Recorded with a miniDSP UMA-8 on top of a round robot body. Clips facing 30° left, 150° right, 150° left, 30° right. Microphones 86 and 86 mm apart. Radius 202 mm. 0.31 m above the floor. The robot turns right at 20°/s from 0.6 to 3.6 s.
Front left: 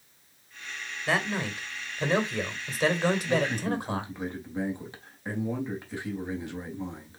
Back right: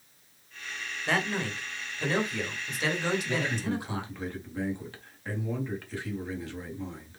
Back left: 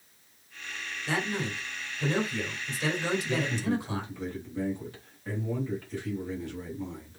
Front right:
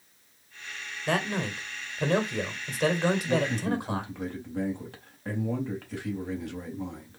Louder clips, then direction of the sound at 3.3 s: Front left 3 dB, front right 2 dB; 45° right.